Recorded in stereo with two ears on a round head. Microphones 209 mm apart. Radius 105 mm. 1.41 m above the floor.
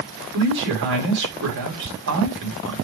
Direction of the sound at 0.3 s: 55° right (ahead or behind).